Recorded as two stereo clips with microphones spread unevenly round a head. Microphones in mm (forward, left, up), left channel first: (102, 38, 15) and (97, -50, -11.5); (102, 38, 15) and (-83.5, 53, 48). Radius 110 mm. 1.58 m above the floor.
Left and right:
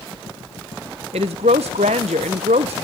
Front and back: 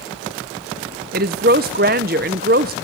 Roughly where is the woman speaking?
Behind right.